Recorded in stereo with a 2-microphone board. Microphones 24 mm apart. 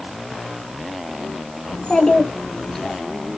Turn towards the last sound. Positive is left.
turn(degrees=30)  # may be behind; listen again after turning